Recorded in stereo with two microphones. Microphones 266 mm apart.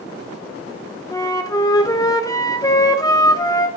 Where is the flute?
15° left (ahead or behind), 0.9 m.